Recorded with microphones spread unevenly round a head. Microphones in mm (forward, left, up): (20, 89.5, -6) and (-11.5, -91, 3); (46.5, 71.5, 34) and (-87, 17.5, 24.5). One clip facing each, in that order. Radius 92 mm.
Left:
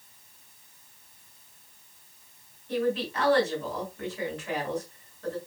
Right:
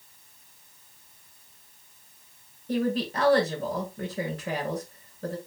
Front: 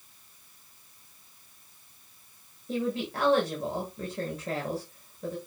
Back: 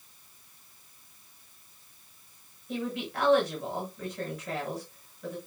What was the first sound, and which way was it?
A woman speaking, 45° right.